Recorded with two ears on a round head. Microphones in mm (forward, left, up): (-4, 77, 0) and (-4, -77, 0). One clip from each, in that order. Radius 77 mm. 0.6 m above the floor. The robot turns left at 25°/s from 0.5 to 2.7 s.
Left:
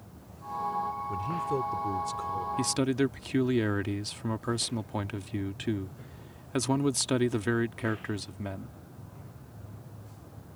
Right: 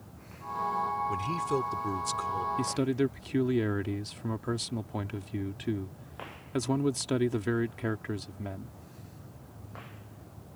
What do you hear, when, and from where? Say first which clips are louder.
1.1 s a man speaking: right 1 dB; 110° right; by 2.5 s 145° right
2.6 s a man speaking: left 1 dB; 25° left (ahead or behind)